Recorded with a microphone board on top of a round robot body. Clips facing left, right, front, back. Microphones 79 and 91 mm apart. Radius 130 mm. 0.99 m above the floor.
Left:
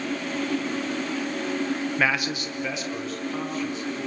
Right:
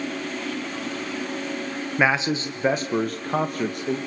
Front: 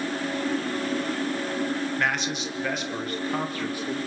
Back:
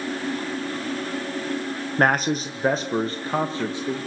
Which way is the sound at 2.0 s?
155° right.